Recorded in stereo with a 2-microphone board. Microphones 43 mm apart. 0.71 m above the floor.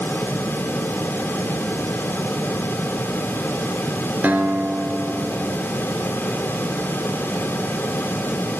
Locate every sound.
4.2 s a guitar: 35° right (ahead or behind), 3 m